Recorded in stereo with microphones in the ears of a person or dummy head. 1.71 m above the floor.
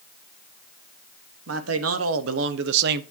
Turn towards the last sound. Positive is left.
turn(degrees=-55)  # may be behind; listen again after turning